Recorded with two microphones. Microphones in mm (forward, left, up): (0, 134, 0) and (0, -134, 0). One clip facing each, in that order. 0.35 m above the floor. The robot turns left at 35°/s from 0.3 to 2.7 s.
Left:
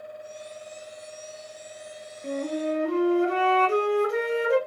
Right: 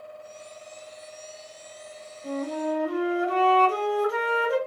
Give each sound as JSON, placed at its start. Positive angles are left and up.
{"t": 2.2, "sound": "a flute", "side_deg": 30, "distance_m": 1.0}